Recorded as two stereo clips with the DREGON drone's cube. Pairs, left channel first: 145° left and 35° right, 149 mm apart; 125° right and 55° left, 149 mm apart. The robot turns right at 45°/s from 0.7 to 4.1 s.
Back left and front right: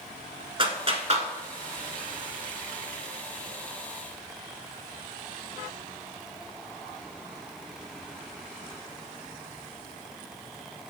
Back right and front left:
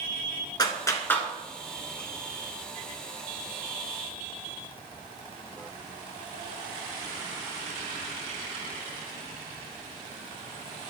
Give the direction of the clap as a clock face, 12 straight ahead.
2 o'clock.